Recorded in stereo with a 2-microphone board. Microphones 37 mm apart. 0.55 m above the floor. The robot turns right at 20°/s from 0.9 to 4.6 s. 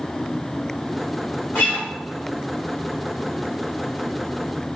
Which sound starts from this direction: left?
A guitar, at 1.6 s.